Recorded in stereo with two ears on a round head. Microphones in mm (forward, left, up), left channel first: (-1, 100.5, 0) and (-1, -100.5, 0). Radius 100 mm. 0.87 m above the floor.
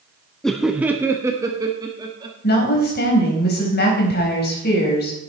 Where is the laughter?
5° left (ahead or behind), 0.7 m; by 2.3 s 20° right (ahead or behind), 1.8 m.